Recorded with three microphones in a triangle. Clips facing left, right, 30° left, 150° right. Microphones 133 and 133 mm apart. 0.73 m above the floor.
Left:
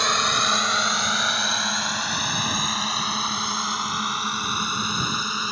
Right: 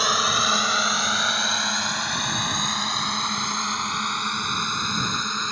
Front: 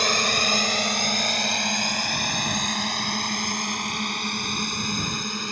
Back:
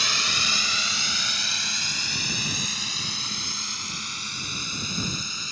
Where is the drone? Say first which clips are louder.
Even, front 8 dB; 5° right; by 5.5 s 5° left.